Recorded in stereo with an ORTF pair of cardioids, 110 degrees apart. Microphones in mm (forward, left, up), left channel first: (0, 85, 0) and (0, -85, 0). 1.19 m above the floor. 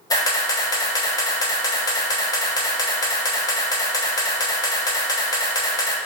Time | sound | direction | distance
0.1 | a camera shutter | 20° left | 0.7 m